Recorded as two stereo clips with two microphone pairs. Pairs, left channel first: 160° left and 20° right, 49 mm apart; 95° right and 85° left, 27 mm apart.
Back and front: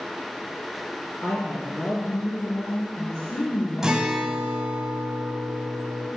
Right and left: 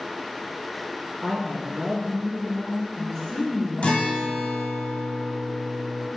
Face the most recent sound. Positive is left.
turn(degrees=-95)